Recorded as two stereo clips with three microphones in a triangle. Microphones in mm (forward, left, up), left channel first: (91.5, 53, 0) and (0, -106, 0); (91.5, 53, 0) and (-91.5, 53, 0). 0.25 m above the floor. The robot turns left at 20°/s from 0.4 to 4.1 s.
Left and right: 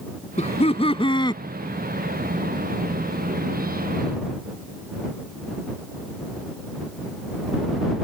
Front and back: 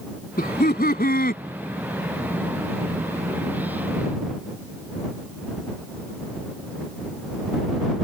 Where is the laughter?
20° left; by 1.4 s 5° right.